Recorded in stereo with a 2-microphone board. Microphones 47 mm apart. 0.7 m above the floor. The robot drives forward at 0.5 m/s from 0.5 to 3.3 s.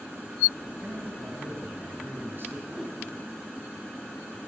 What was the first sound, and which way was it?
A man speaking, 45° right (ahead or behind).